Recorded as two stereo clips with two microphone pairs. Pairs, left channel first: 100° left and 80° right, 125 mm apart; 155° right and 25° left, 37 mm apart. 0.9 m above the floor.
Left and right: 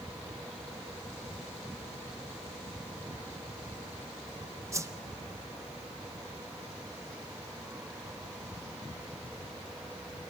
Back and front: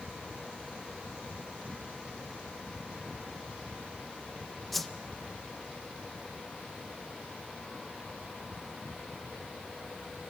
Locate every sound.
4.7 s a whoosh: 80° right, 0.6 m